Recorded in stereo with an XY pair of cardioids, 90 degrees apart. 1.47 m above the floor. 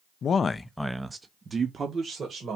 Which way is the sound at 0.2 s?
60° left.